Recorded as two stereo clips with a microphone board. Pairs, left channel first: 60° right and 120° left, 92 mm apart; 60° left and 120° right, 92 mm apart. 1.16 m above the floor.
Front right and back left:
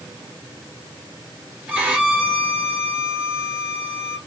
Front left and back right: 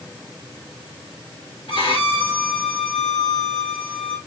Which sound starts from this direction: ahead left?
A violin, at 1.7 s.